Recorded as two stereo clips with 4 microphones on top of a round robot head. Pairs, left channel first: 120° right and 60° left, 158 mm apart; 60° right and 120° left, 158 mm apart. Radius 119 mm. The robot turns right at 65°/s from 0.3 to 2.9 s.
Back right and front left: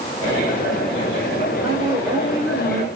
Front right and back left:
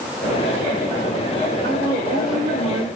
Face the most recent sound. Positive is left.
turn(degrees=175)